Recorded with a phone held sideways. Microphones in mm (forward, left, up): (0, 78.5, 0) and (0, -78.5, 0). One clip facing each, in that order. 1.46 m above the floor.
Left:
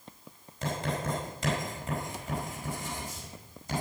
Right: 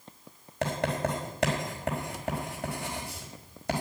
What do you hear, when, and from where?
0.6 s writing: 70° right (ahead or behind), 4.5 m